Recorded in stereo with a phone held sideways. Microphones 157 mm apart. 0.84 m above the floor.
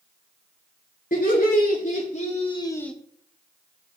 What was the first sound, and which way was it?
Laughter, 65° left (ahead or behind).